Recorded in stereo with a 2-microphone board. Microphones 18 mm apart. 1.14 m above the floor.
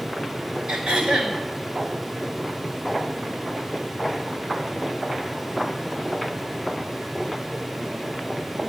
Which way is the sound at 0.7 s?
60° right (ahead or behind).